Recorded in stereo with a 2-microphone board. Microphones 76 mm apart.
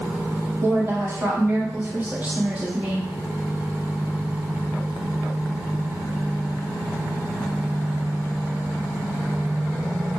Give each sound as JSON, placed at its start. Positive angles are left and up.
{"t": 0.6, "sound": "a woman speaking", "side_deg": -35, "distance_m": 1.8}